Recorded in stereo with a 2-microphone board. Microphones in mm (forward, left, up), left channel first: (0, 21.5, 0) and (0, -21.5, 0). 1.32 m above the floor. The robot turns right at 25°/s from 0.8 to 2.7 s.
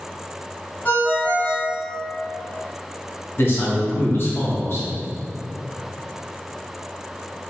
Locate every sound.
0.8 s a ringtone: 50° left (ahead or behind), 1.3 m; by 1.8 s 25° left (ahead or behind), 1.3 m
3.4 s a man speaking: 55° left (ahead or behind), 0.7 m